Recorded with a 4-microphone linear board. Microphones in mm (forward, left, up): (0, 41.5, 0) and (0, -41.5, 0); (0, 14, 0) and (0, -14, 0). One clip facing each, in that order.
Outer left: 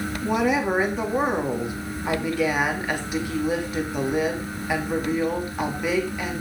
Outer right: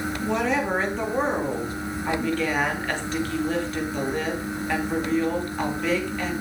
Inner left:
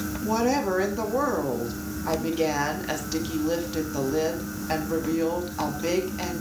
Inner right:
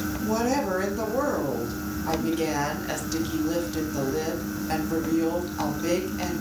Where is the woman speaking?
10° left (ahead or behind), 3 m.